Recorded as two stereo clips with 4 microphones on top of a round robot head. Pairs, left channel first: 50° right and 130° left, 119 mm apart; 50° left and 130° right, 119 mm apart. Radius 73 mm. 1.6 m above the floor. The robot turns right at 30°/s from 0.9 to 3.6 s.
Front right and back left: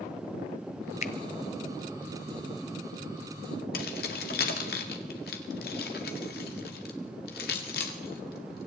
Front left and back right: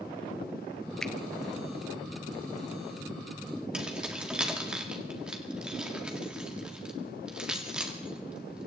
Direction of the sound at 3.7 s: 45° right.